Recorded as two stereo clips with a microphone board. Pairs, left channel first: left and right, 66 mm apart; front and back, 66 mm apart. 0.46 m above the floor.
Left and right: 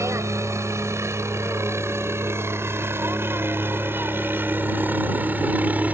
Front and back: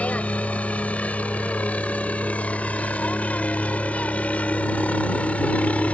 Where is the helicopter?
65° right; by 5.9 s 50° right.